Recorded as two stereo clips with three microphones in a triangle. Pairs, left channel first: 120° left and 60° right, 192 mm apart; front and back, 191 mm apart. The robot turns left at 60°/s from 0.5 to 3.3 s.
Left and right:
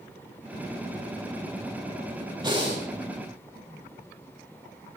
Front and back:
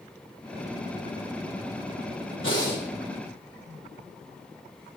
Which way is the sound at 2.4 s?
5° left.